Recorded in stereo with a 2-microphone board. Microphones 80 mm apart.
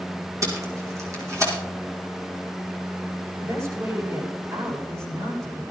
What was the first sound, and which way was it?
Tape being pulled, 40° right (ahead or behind).